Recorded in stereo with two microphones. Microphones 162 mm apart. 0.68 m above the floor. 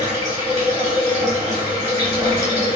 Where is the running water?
45° right (ahead or behind), 1.3 m.